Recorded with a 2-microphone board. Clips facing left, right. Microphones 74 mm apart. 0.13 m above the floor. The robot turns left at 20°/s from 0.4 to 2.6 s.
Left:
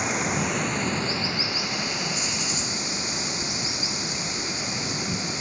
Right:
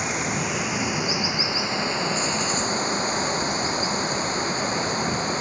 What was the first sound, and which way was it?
Running water, straight ahead.